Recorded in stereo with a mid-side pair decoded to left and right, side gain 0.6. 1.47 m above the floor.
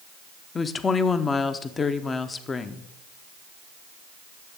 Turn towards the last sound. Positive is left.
turn(degrees=30)